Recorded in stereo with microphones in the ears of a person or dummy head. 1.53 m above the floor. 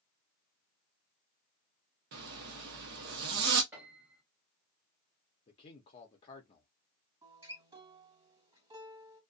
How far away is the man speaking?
About 0.6 m.